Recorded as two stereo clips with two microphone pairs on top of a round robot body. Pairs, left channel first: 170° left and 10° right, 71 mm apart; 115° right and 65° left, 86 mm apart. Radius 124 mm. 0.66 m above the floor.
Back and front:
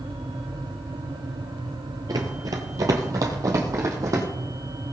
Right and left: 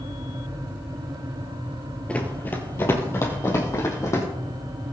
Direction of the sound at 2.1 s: 45° right.